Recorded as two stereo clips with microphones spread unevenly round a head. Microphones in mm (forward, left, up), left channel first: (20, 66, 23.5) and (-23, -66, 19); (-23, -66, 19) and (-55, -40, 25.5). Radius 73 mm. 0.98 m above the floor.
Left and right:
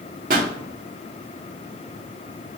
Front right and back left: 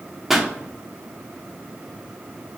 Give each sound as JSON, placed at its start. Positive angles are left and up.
{"t": 0.3, "sound": "a pop", "azimuth_deg": -140, "distance_m": 1.1}